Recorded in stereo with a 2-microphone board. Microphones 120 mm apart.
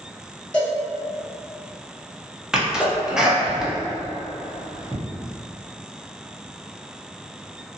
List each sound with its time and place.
0.5 s a cowbell: 10° left (ahead or behind), 1.1 m
2.5 s a sneeze: 5° right (ahead or behind), 0.8 m